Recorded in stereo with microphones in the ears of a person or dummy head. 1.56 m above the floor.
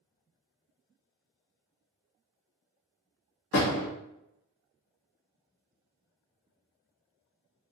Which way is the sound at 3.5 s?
70° left (ahead or behind).